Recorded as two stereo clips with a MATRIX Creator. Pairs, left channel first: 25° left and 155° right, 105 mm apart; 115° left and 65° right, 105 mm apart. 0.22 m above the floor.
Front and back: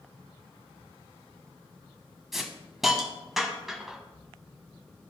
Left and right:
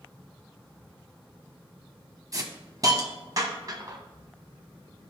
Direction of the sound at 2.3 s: 70° right.